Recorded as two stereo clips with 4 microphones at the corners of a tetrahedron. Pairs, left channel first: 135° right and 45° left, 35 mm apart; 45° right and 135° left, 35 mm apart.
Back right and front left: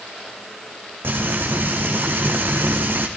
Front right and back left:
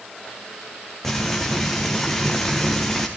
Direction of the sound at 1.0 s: 35° left.